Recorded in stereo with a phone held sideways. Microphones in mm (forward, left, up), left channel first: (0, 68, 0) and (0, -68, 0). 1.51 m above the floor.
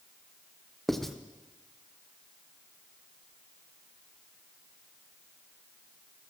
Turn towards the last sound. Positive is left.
turn(degrees=0)  # may be behind; listen again after turning